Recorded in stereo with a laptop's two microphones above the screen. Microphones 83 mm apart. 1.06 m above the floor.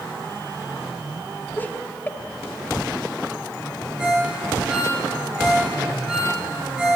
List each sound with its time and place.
1.6 s laughter: 20° left (ahead or behind), 2.5 m
4.0 s a ringtone: 5° right (ahead or behind), 6.5 m